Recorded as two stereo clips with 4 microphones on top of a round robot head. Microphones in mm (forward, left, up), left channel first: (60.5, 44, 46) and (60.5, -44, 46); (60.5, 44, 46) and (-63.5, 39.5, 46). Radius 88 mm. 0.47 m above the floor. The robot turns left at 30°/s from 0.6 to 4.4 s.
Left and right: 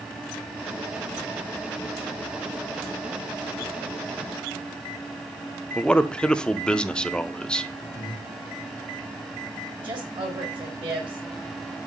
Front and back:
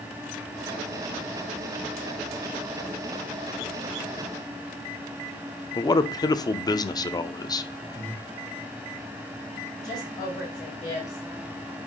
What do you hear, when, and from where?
5.8 s a man speaking: 20° left, 0.8 m
8.0 s breathing: 115° left, 3 m
9.8 s a woman speaking: 65° right, 6.5 m